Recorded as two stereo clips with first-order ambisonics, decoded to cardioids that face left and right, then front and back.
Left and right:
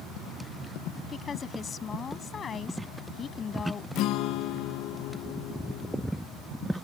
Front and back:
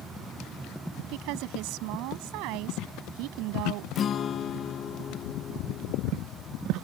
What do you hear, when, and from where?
1.1 s a woman speaking: 155° left
4.0 s a guitar: 60° left